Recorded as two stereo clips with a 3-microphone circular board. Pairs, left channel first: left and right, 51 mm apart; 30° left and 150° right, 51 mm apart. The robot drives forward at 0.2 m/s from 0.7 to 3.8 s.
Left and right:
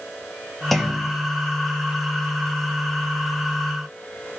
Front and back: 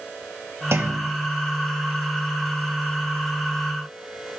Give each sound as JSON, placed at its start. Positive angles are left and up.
{"t": 0.7, "sound": "a clunk", "azimuth_deg": 175, "distance_m": 0.9}